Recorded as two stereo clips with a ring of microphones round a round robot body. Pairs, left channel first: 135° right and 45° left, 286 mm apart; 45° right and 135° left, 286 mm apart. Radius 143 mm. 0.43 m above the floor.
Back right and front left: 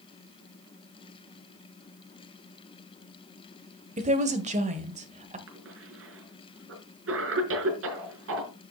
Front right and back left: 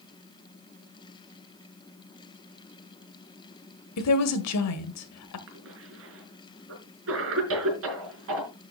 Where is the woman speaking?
20° right, 1.5 m.